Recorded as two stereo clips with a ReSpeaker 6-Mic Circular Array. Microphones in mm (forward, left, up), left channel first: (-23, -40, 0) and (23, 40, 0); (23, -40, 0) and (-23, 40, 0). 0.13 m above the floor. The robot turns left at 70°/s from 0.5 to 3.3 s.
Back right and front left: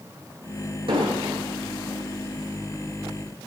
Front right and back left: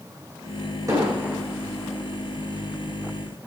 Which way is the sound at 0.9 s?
70° left.